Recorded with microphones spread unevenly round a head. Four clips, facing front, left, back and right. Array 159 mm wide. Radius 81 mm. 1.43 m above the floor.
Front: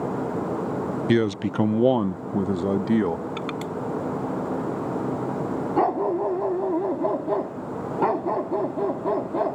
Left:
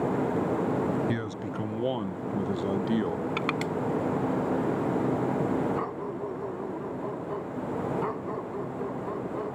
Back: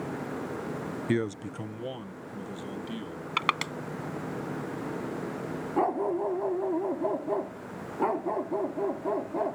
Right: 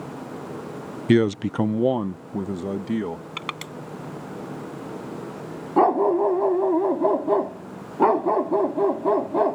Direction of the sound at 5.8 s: 75° right.